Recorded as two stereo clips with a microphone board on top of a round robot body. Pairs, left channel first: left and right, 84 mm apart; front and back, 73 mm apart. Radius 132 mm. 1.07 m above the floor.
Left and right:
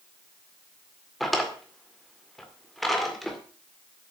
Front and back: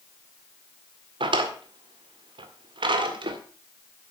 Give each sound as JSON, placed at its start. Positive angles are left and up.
{"t": 1.2, "sound": "a drawer", "azimuth_deg": 180, "distance_m": 1.9}